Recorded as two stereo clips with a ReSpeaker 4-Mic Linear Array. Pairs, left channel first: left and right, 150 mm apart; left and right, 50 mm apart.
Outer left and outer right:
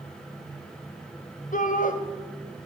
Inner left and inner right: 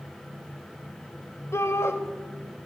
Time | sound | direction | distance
1.5 | a shout | 65° left (ahead or behind) | 1.0 m